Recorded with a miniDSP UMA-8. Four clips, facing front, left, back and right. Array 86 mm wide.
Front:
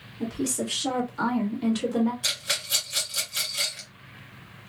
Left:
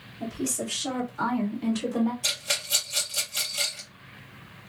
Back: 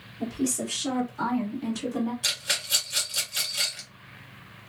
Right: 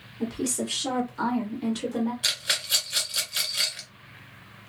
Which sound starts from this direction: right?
A rattle, at 2.2 s.